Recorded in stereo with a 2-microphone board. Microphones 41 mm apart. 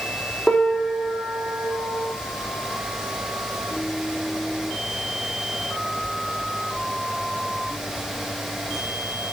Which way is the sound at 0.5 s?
10° left (ahead or behind).